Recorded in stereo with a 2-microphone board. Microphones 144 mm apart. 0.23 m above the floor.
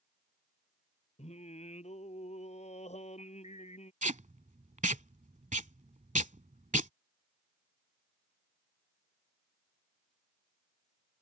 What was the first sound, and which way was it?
Singing, 50° left (ahead or behind).